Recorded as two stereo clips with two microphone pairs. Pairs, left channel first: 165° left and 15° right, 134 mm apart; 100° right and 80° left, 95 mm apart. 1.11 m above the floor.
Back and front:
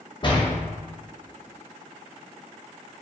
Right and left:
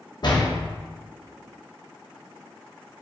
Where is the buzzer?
No buzzer in this recording.